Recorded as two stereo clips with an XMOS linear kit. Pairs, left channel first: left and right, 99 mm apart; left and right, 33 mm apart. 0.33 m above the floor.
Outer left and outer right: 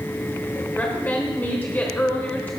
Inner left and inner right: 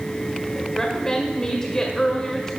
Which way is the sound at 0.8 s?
20° left (ahead or behind).